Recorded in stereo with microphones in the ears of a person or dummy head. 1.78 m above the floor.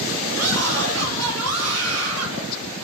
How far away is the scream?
About 3 m.